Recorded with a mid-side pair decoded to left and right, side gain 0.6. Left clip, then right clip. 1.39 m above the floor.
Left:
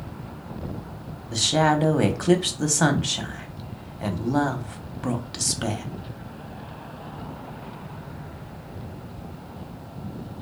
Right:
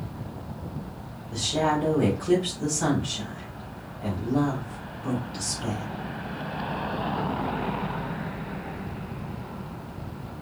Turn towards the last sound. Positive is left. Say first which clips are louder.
# left 4 dB
turn(degrees=60)